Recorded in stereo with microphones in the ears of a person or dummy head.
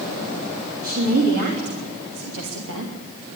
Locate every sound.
0.8 s a woman speaking: 50° right (ahead or behind), 3.5 m; by 2.9 s 80° right, 2 m